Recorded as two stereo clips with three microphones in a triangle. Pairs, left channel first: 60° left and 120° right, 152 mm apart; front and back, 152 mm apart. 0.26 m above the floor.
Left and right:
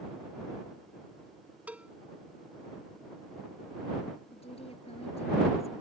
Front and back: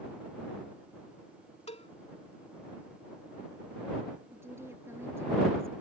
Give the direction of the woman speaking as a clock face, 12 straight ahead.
8 o'clock.